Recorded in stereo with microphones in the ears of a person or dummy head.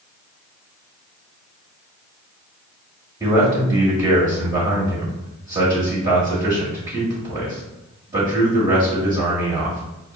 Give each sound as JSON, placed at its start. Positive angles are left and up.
{"t": 3.2, "sound": "a man speaking", "side_deg": -25, "distance_m": 1.4}